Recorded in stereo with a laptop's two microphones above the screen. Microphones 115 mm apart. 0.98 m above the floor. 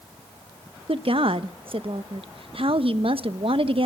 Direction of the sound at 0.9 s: 50° right (ahead or behind).